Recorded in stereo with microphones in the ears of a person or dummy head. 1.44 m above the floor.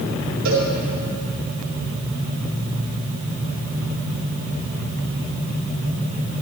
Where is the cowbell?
80° right, 3.5 m.